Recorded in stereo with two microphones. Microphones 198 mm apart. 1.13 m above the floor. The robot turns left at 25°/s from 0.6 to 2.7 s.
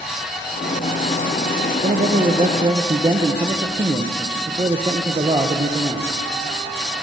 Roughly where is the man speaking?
Right.